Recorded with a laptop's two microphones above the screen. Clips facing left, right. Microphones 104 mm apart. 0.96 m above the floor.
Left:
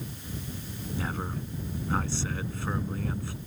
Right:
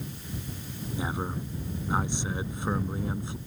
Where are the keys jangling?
No keys jangling in this recording.